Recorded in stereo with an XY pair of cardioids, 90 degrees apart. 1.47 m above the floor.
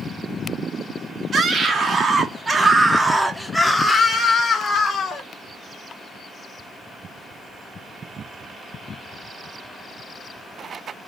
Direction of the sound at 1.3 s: 50° right.